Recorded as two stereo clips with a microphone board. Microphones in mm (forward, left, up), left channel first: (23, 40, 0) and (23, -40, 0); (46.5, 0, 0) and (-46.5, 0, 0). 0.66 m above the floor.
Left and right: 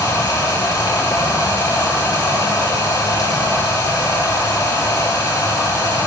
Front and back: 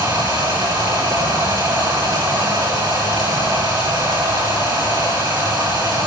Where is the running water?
135° left, 10 m.